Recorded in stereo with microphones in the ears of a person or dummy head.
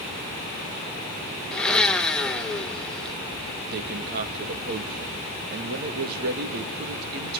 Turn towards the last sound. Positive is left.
turn(degrees=-50)  # may be behind; listen again after turning